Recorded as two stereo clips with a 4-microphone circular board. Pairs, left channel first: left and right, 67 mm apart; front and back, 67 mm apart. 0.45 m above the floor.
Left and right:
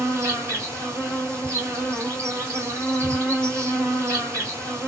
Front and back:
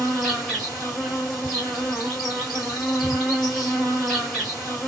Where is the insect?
80° right, 2.5 m.